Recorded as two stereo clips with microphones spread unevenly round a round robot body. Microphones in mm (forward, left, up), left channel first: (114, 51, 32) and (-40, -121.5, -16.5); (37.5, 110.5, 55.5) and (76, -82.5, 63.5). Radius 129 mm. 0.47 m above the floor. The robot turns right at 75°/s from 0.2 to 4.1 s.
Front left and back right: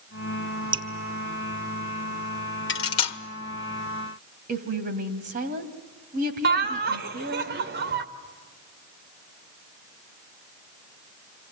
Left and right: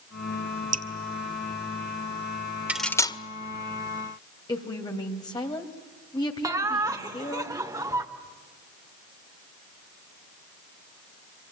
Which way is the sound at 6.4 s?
150° right.